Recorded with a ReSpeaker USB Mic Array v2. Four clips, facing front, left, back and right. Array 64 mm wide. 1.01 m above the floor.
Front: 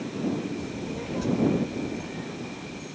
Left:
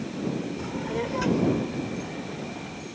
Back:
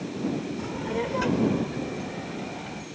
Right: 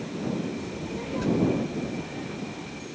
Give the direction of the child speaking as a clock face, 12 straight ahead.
7 o'clock.